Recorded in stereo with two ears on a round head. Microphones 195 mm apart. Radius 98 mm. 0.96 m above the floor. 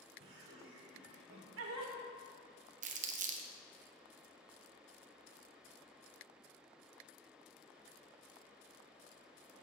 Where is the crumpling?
35° right (ahead or behind), 0.7 m.